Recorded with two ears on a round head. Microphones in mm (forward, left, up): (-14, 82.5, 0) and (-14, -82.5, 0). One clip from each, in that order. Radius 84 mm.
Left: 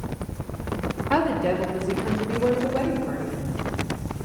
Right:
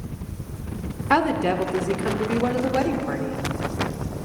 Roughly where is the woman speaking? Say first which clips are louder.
Right 3 dB; right.